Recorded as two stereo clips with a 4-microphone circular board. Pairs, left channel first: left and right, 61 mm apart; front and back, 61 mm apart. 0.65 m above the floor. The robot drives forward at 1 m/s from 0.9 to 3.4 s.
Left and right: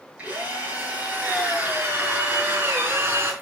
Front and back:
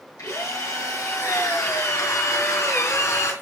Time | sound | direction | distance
0.2 | a drill | 25° right | 6 m